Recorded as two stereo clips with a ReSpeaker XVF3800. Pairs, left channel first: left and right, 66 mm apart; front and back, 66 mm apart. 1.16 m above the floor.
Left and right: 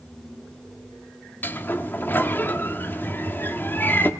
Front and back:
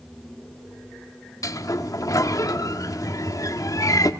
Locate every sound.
1.4 s a sliding door: 30° left, 1.4 m